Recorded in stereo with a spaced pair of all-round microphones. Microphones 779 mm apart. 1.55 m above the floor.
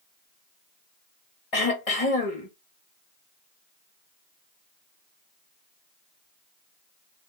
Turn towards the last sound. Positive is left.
turn(degrees=45)  # may be behind; listen again after turning